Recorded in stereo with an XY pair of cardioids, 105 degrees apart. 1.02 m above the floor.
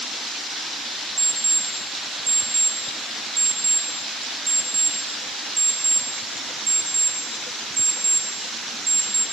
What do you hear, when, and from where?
1.2 s an alarm clock: 30° right, 4 m